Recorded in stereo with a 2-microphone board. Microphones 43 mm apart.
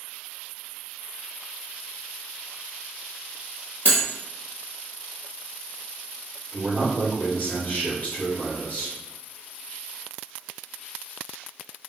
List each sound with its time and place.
3.9 s cutlery clinking: 60° left (ahead or behind), 1.6 m
6.5 s a man speaking: 40° left (ahead or behind), 1.4 m